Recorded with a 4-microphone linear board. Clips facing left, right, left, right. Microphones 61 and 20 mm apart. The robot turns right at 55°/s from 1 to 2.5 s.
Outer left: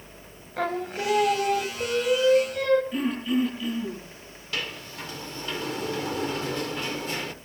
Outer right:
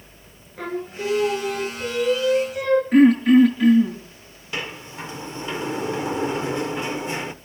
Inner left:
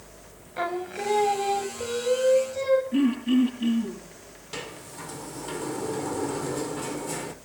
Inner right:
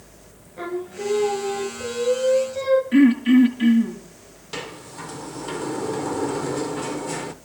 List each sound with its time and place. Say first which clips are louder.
0.6 s singing: outer left 1 dB, even; 105° left, 3 m; by 2.8 s 170° right, 3 m
2.9 s throat clearing: outer right 13 dB, inner right 8 dB; 55° right (ahead or behind), 7.5 m
4.5 s a sliding door: outer right 3 dB, inner right 4 dB; 20° right (ahead or behind), 1.1 m